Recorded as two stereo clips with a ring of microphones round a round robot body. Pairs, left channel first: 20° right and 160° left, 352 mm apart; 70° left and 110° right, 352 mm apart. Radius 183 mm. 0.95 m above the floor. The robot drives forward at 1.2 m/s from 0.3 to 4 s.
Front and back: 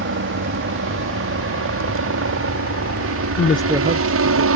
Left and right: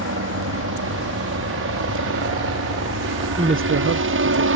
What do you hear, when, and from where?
0.0 s a helicopter: 155° right; by 4.6 s 160° right
3.4 s a woman speaking: 40° right; by 4.5 s 155° right